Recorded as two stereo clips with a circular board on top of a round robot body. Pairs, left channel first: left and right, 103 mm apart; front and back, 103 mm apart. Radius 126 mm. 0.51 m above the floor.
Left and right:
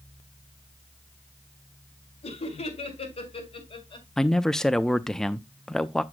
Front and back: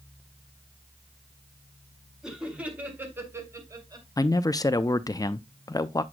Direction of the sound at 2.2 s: 100° left.